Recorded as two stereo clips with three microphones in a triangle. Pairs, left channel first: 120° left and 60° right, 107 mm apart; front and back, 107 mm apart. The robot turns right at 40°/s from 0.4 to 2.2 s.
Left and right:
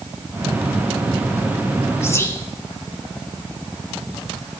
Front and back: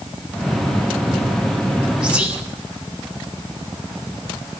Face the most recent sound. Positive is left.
turn(degrees=120)